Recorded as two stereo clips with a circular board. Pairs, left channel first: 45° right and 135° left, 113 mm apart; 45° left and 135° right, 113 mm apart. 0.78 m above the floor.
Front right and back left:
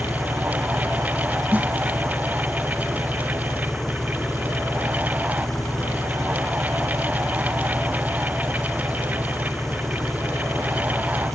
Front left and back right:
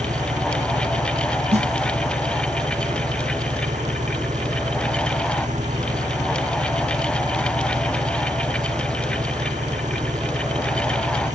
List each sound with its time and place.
0.0 s an engine running: 135° right
1.5 s a snare drum: 150° right